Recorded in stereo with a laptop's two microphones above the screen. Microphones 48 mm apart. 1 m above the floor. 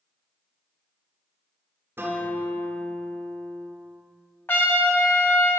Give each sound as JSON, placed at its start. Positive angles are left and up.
{"t": 2.0, "sound": "a guitar", "side_deg": -55, "distance_m": 1.7}
{"t": 4.5, "sound": "a trumpet", "side_deg": 45, "distance_m": 0.8}